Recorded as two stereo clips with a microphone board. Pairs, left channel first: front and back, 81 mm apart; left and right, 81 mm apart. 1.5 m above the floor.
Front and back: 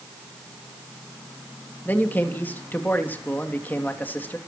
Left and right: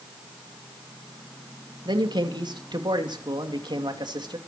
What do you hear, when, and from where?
1.9 s a man speaking: 70° right, 3 m